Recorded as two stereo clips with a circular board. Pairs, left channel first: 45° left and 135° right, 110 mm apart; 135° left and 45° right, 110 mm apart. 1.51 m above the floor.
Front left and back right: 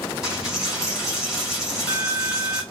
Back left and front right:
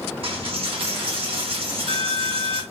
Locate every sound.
0.2 s a dropped coin: 50° right, 2 m